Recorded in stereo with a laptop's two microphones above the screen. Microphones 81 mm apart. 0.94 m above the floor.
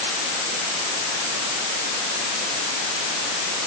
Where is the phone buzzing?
I don't hear a phone buzzing.